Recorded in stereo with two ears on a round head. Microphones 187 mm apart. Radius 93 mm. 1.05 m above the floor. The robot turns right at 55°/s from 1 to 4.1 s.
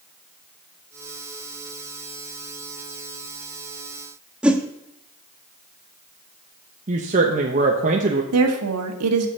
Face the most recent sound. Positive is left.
turn(degrees=-85)